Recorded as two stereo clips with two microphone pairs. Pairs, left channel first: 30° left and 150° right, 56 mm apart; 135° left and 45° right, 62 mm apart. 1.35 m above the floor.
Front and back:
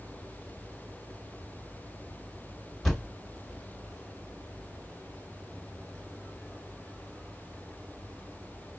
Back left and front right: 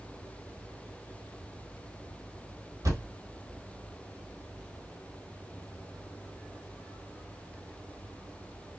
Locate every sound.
2.8 s a thud: 60° right, 2 m